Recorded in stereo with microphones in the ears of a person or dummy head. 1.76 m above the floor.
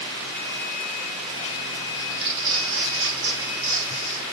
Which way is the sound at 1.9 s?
55° right (ahead or behind).